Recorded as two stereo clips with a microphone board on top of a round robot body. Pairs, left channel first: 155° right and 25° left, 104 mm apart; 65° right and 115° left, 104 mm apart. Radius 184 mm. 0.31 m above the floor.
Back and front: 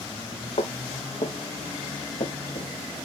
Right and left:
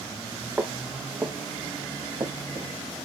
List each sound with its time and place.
0.6 s footsteps: 170° right, 4 m; by 2.7 s 175° left, 5.5 m